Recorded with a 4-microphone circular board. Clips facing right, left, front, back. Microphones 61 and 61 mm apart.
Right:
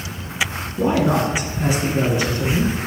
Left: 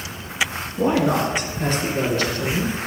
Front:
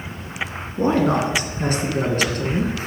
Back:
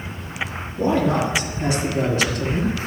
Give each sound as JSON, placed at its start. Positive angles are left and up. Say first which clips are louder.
{"t": 0.8, "sound": "a man speaking", "louder": "right 1 dB, front 1 dB", "azimuth_deg": 5, "distance_m": 2.5}